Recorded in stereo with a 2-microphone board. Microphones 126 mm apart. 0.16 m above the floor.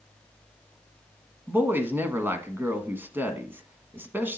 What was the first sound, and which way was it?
A woman speaking, 15° right (ahead or behind).